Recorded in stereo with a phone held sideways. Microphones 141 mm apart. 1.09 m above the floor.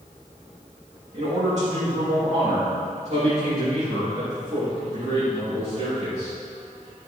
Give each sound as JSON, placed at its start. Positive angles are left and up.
{"t": 1.1, "sound": "a man speaking", "side_deg": -55, "distance_m": 2.0}